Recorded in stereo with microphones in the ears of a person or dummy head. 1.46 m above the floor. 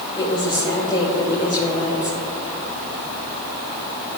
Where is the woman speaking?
25° left (ahead or behind), 2.5 m.